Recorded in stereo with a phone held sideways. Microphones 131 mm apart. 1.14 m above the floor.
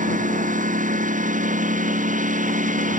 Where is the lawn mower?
80° right; by 3.0 s 75° right (ahead or behind).